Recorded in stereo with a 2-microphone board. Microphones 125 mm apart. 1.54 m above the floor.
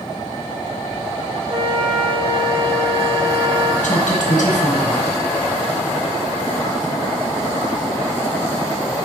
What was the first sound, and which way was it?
A flute, 45° right (ahead or behind).